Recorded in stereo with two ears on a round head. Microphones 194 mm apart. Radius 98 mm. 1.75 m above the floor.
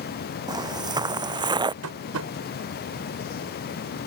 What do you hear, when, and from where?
0.5 s footsteps: 20° right (ahead or behind)
1.8 s tapping: 85° right